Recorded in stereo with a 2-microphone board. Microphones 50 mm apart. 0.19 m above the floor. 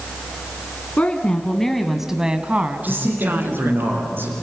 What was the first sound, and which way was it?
A woman speaking, 30° left (ahead or behind).